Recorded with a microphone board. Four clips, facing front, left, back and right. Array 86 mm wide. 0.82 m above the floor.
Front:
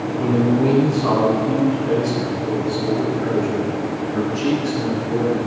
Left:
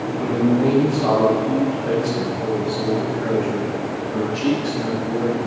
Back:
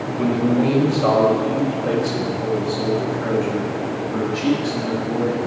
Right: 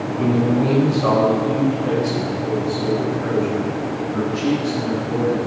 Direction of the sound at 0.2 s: 170° right.